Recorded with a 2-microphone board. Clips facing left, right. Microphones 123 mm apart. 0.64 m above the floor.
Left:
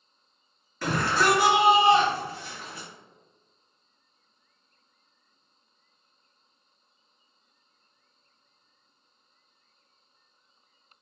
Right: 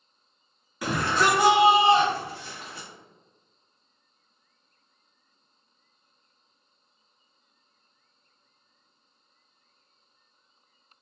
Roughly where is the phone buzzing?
No phone buzzing in this recording.